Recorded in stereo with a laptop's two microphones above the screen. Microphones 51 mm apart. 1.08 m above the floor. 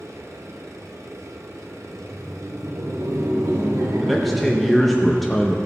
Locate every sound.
0.0 s a machine running: 75° right (ahead or behind), 1.0 m
1.8 s laughter: 80° right, 1.9 m
4.0 s a man speaking: 5° left (ahead or behind), 0.6 m